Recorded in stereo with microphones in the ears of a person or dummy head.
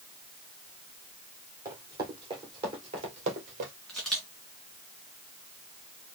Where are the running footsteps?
15° right (ahead or behind), 3 m; by 3.7 s 30° right (ahead or behind), 1.8 m.